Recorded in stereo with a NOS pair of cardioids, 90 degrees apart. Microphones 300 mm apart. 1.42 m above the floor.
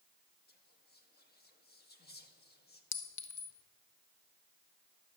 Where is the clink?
65° left, 1.0 m.